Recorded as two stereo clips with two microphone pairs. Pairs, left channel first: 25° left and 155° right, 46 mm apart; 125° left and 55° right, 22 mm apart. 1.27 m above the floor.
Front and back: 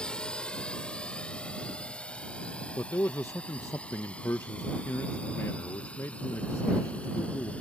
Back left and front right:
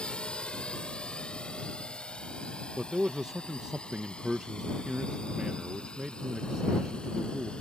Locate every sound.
0.0 s a drone: 95° left; by 7.6 s 85° left
2.8 s a man speaking: 10° left